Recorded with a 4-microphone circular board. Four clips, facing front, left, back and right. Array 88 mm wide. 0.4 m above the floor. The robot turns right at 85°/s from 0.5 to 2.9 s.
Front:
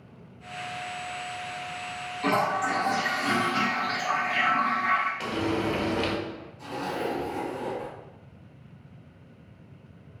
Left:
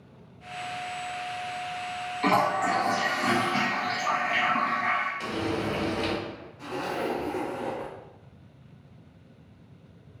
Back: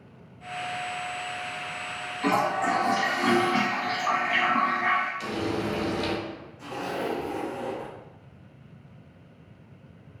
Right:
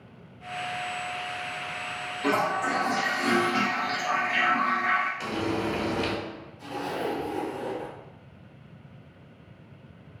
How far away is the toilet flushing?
About 0.7 m.